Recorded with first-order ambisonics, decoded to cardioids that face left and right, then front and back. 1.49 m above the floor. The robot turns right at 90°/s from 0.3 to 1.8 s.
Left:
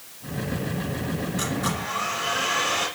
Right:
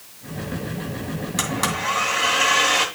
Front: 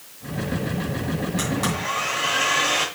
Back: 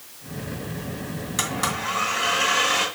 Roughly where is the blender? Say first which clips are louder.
Right 6 dB, back 3 dB; behind right.